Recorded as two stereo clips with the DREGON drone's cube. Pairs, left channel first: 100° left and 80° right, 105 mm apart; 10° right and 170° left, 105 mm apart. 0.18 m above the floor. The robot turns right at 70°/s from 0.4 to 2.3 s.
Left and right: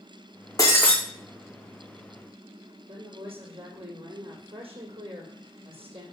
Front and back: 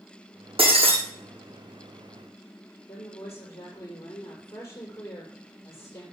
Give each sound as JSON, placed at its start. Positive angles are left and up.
{"t": 0.6, "sound": "breaking glass", "azimuth_deg": 155, "distance_m": 2.0}
{"t": 2.9, "sound": "a woman speaking", "azimuth_deg": -75, "distance_m": 6.0}